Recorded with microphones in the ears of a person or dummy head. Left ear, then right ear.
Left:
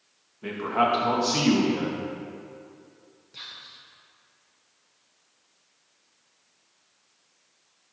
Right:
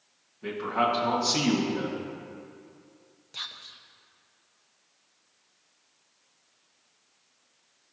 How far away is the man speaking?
About 1.7 m.